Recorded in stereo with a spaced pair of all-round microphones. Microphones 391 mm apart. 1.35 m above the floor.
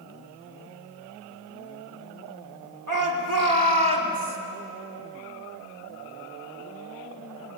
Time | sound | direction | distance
2.9 | a shout | 50° right (ahead or behind) | 3 m